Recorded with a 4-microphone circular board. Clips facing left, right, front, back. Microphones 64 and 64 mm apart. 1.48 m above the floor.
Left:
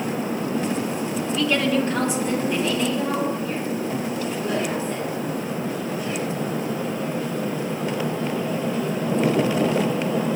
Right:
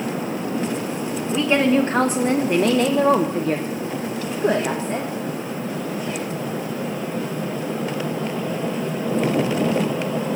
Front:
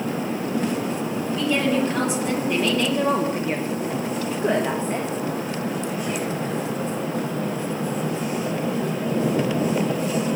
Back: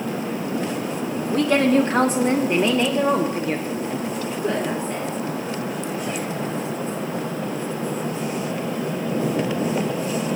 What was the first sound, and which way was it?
A woman speaking, 155° right.